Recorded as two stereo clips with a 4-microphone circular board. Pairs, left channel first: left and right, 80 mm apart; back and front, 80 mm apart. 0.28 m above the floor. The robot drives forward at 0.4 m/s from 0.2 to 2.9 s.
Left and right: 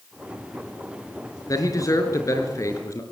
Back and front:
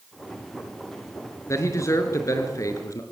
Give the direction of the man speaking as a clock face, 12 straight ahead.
8 o'clock.